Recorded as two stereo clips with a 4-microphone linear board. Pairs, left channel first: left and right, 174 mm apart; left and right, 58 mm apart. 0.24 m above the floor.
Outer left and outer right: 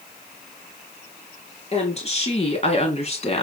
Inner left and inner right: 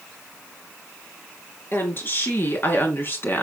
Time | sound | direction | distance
1.7 | a woman speaking | 40° left (ahead or behind) | 4 m